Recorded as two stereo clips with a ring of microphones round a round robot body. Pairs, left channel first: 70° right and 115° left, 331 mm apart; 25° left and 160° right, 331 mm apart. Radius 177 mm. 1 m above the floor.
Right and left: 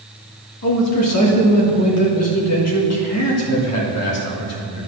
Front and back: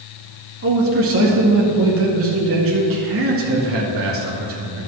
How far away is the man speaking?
About 2 m.